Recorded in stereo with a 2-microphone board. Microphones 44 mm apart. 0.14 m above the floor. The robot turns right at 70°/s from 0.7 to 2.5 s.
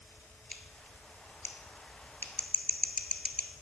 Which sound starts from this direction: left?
Scissors, at 0.5 s.